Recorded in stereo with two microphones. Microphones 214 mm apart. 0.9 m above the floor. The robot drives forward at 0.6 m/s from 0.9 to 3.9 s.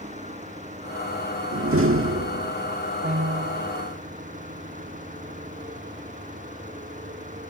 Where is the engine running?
35° right (ahead or behind).